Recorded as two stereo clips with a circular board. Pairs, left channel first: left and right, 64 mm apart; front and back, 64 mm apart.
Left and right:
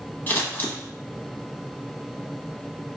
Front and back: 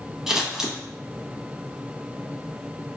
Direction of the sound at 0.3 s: 105° left.